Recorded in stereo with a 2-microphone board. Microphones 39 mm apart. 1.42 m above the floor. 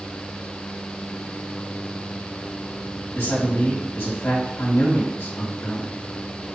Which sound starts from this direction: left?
A man speaking, at 3.1 s.